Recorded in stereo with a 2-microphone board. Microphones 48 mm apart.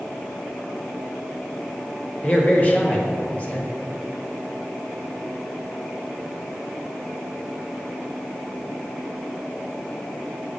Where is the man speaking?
30° left (ahead or behind), 1.1 m.